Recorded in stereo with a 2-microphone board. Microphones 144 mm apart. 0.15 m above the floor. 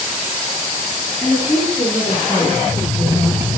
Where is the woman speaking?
10° left (ahead or behind), 2.5 m; by 3.5 s 20° left (ahead or behind), 5 m.